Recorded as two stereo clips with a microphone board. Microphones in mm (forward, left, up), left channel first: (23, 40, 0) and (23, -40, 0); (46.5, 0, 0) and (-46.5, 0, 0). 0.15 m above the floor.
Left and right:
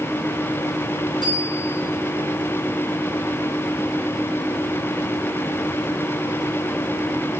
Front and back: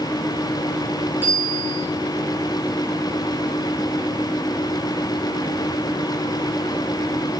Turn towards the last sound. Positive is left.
turn(degrees=110)